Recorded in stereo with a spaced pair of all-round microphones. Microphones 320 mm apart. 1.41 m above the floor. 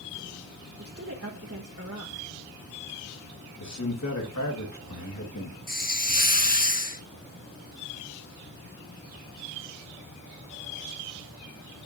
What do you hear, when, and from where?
0.8 s a woman speaking: 45° right (ahead or behind), 1.4 m
3.6 s a man speaking: 60° left (ahead or behind), 2 m
5.7 s a hiss: 25° left (ahead or behind), 1.1 m